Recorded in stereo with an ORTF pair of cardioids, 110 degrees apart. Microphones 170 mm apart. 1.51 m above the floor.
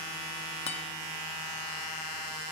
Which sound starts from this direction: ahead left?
A guitar, at 0.7 s.